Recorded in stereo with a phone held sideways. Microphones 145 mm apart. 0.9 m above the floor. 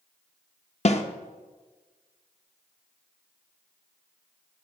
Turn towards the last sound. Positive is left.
turn(degrees=50)  # may be behind; listen again after turning